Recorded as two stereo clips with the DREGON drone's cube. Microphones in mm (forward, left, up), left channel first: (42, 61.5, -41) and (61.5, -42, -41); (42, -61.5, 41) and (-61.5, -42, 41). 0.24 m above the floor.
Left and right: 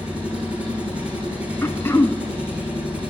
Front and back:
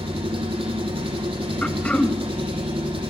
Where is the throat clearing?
55° left, 0.9 m.